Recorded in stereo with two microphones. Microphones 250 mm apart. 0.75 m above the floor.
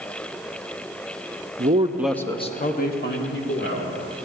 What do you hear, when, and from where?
1.6 s a man speaking: 40° right (ahead or behind), 0.7 m; by 3.9 s 45° left (ahead or behind), 2 m